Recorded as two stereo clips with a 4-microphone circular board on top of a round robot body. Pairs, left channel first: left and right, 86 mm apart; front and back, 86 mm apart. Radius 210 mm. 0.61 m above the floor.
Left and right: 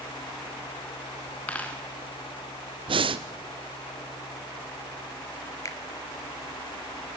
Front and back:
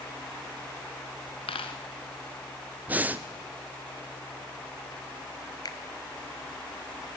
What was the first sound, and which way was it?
A dropped coin, 15° left.